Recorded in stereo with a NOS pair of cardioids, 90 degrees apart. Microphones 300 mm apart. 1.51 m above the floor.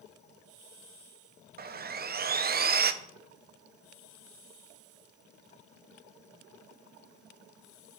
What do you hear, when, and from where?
1.6 s sawing: 30° right, 0.8 m